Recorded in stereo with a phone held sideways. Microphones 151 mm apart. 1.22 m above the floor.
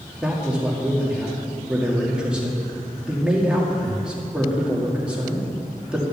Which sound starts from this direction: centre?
A man speaking, at 0.2 s.